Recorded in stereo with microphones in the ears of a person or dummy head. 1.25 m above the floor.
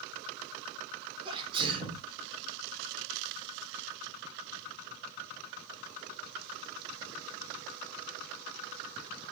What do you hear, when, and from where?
1.2 s a sneeze: 30° right (ahead or behind), 4.5 m